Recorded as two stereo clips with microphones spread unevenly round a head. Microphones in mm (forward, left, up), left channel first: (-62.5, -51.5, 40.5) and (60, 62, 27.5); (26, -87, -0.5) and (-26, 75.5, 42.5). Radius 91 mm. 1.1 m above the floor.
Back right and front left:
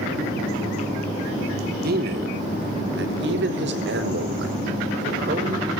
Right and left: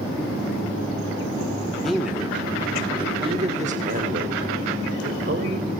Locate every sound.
1.8 s a man speaking: 15° left, 3.5 m; by 5.7 s 80° left, 5.5 m